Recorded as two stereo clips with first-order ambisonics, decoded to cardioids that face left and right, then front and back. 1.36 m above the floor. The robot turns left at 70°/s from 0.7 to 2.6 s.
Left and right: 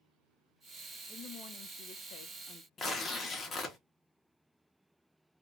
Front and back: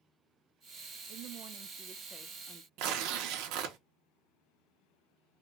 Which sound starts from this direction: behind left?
Tearing paper, at 2.8 s.